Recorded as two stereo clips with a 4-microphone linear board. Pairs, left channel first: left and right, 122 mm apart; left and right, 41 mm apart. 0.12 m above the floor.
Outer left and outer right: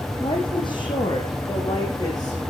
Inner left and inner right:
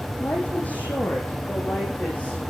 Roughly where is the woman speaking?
Left.